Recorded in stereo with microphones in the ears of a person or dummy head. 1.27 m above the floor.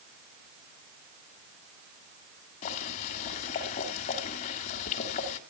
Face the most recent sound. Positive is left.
turn(degrees=40)  # may be behind; listen again after turning